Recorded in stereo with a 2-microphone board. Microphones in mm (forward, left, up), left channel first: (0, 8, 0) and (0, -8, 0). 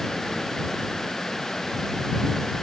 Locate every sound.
Only background noise.